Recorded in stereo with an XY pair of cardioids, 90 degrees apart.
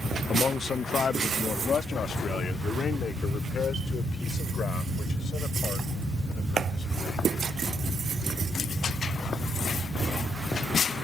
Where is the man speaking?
45° left; by 7.4 s 60° left.